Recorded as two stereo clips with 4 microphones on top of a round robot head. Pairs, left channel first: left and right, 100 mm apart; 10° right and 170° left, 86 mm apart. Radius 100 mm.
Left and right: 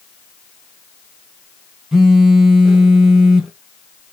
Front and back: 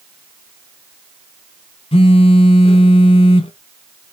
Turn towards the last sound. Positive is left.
turn(degrees=-5)